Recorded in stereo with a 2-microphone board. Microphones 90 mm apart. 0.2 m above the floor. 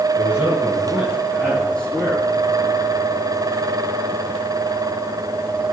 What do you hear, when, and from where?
0.2 s a man speaking: 20° right (ahead or behind), 3 m; by 2.2 s 15° left (ahead or behind), 5 m